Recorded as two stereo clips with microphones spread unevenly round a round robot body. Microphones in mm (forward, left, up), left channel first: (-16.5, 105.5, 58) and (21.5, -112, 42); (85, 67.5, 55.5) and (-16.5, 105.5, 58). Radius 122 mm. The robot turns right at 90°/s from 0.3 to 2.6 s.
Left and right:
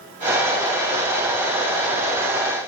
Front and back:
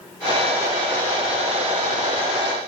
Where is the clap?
No clap in this recording.